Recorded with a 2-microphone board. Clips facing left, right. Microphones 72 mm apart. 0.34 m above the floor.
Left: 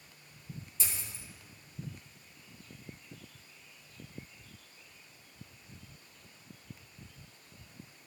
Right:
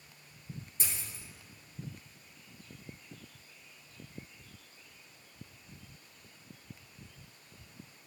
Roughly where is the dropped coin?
Right.